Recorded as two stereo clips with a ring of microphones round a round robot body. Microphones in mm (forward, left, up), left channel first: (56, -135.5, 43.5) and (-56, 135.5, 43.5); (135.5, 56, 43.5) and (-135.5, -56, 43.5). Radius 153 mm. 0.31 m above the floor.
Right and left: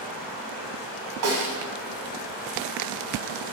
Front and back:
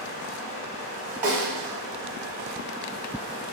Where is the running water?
5° right, 1.8 m.